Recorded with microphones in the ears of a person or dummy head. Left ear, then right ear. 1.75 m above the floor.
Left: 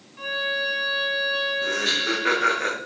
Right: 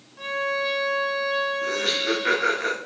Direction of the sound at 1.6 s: 5° left (ahead or behind).